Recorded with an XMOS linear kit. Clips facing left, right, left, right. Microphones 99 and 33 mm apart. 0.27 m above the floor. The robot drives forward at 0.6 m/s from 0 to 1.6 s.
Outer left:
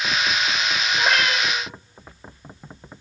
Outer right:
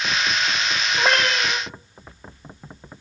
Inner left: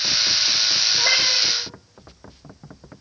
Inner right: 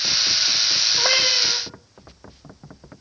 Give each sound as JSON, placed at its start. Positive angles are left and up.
{"t": 1.0, "sound": "a cat meowing", "side_deg": -45, "distance_m": 1.0}